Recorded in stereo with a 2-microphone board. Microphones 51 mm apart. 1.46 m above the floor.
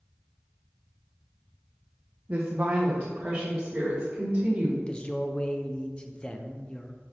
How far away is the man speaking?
About 0.6 m.